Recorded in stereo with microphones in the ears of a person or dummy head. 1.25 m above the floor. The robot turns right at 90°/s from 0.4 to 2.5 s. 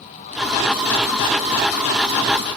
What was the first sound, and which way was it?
Only background noise.